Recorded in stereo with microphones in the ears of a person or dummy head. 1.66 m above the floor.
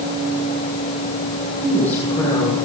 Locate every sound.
1.6 s a woman speaking: 10° left (ahead or behind), 6 m